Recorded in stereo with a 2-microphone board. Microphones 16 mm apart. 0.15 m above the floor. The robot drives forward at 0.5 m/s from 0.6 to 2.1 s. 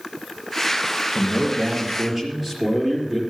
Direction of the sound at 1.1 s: 25° right (ahead or behind).